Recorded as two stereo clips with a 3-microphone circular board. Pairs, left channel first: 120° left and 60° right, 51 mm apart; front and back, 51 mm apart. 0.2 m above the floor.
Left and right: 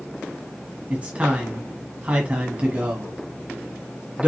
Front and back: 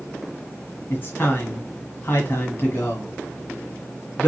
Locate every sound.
0.9 s a man speaking: 10° right, 1.4 m